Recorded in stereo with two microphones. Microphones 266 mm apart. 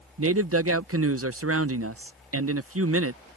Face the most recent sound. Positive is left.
turn(degrees=-55)  # may be behind; listen again after turning